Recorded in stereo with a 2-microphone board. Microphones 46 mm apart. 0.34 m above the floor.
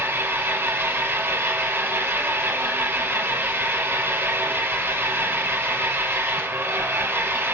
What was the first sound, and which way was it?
An engine running, 60° right (ahead or behind).